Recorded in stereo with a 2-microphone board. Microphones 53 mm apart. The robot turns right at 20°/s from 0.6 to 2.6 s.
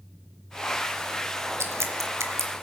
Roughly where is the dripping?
Right.